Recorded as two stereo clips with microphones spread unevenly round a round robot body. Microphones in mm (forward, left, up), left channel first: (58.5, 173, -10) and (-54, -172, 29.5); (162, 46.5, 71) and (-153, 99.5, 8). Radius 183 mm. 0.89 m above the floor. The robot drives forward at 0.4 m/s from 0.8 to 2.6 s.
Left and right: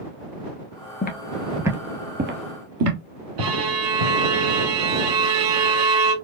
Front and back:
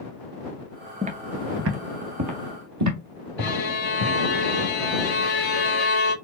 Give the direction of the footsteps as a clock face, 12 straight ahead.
9 o'clock.